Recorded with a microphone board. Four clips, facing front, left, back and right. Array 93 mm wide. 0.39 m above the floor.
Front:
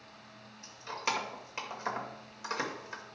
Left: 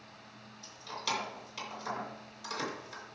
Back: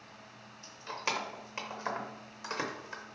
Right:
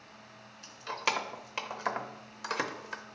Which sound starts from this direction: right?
Keys jangling, at 0.6 s.